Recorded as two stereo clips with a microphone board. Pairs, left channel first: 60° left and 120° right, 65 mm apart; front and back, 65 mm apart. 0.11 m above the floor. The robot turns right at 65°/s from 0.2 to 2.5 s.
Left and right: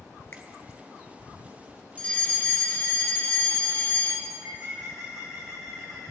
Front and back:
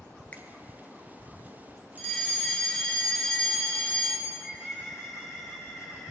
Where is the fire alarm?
25° left, 2 m; by 4.2 s 60° left, 2 m.